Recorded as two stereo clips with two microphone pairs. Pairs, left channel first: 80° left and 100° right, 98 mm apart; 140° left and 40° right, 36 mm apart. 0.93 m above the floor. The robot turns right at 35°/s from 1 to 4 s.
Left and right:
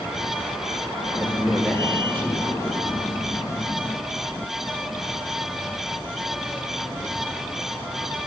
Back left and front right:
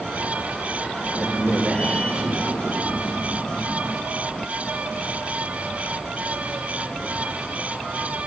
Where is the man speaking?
20° right, 1.7 m; by 2.8 s 40° left, 1.7 m.